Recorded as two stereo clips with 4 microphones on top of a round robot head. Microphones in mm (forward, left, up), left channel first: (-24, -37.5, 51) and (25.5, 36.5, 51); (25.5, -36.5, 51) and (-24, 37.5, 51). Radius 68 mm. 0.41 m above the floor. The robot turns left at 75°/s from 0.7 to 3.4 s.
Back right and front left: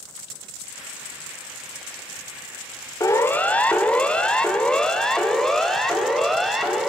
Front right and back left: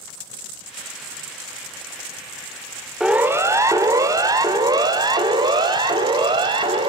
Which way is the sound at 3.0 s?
155° right.